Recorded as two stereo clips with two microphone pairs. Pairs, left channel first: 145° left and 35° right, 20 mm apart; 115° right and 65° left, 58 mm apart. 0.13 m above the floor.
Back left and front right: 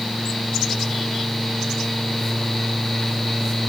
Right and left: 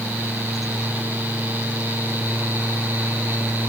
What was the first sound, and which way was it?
Only background noise.